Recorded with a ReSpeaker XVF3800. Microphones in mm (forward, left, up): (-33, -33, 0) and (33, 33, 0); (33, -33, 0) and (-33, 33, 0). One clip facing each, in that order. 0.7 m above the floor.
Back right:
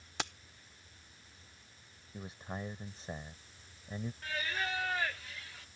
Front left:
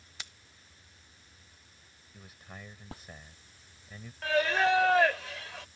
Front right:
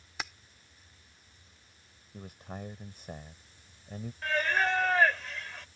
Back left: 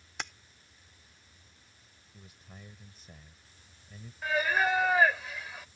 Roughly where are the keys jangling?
Behind right.